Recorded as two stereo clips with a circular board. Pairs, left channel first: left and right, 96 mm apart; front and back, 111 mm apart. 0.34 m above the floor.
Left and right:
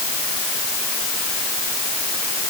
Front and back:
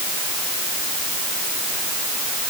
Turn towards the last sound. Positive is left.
No sound to turn to.